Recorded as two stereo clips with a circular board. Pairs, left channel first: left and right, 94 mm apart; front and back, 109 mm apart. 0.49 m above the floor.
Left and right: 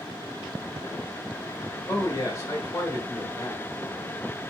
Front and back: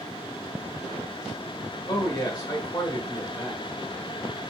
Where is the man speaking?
45° left, 1.4 m.